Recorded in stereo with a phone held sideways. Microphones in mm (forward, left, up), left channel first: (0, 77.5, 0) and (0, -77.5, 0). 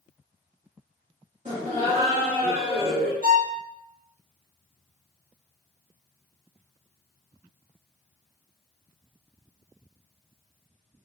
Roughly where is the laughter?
Right.